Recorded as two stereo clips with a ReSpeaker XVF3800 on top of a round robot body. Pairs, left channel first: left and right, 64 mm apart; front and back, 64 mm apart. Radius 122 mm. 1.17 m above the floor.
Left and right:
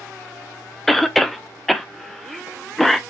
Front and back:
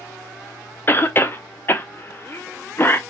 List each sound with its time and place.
0.9 s a cough: 5° left, 0.7 m